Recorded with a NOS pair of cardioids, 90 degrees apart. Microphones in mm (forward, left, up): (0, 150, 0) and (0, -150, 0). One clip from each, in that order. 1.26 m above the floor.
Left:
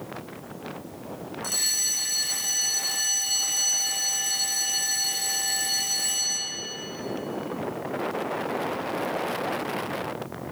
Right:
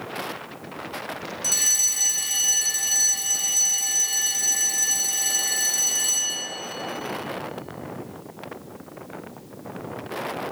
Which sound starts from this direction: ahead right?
A fire alarm, at 1.4 s.